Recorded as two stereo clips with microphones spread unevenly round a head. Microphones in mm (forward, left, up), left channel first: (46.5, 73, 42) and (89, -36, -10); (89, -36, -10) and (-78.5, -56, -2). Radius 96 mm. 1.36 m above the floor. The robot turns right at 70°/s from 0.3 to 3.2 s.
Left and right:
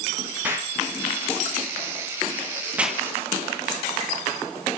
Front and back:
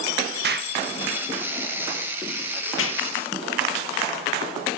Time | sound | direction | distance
0.4 | an explosion | 150° right | 1.5 m